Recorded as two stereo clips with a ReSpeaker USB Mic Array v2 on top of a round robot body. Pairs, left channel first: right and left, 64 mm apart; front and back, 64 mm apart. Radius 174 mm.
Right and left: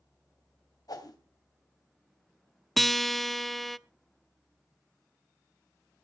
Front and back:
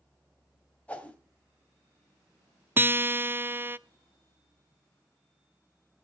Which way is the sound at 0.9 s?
70° right.